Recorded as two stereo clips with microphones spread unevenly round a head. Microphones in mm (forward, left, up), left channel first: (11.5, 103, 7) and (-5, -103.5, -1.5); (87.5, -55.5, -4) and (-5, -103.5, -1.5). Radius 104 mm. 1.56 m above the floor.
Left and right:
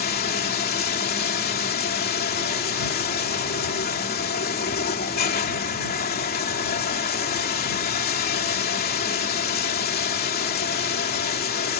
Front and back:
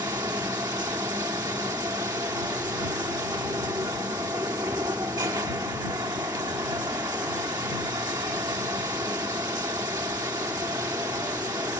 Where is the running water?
135° left.